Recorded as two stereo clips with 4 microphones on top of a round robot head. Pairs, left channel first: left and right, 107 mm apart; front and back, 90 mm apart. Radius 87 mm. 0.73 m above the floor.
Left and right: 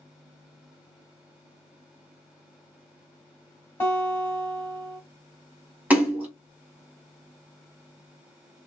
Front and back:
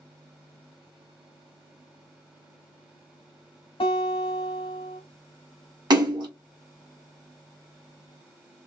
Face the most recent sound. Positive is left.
turn(degrees=-165)